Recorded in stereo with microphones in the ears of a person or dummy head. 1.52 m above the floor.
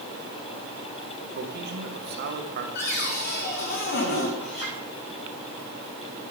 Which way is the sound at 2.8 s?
55° left (ahead or behind).